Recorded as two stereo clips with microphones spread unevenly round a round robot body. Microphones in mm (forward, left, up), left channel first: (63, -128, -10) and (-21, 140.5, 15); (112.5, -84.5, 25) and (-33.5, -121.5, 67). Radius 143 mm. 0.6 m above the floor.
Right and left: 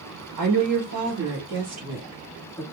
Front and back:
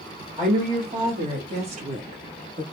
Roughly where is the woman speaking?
Behind left.